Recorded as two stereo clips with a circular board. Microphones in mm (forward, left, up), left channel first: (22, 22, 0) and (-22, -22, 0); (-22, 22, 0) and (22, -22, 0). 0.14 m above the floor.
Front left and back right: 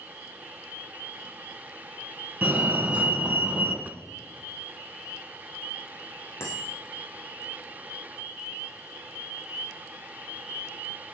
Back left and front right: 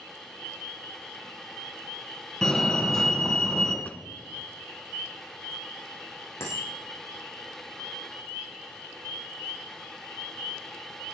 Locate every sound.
2.4 s a fire alarm: 155° right, 2 m
3.9 s a drawer: 175° right, 0.6 m
6.4 s a bicycle bell: 90° left, 7.5 m